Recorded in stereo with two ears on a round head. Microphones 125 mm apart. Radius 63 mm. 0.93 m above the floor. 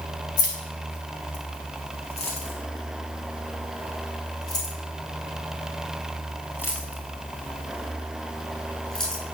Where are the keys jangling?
70° left (ahead or behind), 5.5 m; by 9.2 s 5° left (ahead or behind), 9 m.